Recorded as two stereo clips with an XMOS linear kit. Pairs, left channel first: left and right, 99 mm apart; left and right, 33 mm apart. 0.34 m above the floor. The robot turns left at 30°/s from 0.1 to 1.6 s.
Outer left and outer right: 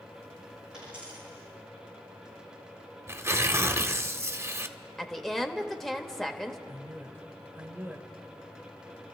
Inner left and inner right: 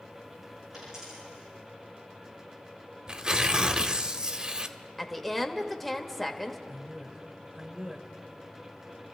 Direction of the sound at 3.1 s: 30° right (ahead or behind).